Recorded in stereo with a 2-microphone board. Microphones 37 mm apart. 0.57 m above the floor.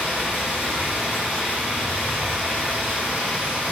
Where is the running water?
50° right (ahead or behind), 1.0 m.